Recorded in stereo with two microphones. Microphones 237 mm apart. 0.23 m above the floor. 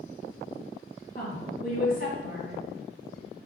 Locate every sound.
1.1 s a woman speaking: 40° left (ahead or behind), 1.7 m